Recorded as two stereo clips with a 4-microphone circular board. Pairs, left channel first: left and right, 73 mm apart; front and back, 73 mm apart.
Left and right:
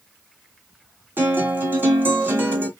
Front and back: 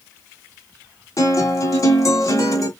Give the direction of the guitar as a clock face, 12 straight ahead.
1 o'clock.